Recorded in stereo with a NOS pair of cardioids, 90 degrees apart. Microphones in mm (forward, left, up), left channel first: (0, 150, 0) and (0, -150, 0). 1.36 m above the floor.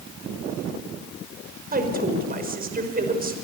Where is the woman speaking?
25° right, 5.5 m.